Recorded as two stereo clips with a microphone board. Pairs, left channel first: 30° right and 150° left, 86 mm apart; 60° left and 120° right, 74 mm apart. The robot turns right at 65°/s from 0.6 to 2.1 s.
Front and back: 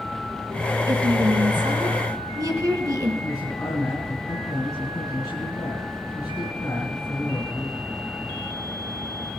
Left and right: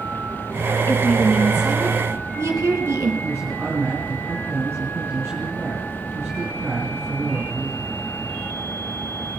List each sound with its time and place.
0.9 s a woman speaking: 115° left, 2.5 m; by 3.1 s 165° right, 2.5 m
3.2 s a man speaking: 70° right, 3.5 m